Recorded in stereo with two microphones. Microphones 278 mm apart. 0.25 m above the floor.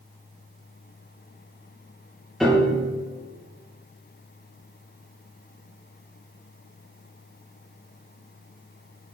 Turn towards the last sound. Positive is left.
turn(degrees=0)  # may be behind; listen again after turning